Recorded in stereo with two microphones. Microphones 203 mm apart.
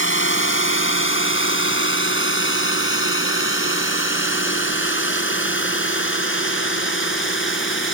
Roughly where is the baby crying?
No baby crying in this recording.